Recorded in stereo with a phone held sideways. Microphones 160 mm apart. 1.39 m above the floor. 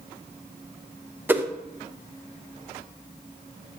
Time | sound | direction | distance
1.3 | a whoosh | 10° right (ahead or behind) | 0.5 m